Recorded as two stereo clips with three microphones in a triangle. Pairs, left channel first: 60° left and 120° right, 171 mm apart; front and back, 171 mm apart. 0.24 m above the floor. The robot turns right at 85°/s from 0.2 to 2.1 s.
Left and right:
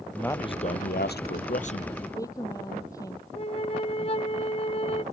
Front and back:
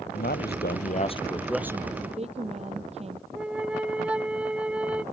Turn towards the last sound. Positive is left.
turn(degrees=100)